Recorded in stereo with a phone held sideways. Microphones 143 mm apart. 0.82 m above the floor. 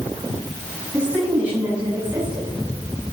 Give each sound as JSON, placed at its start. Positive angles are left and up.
{"t": 0.9, "sound": "a woman speaking", "side_deg": -20, "distance_m": 5.5}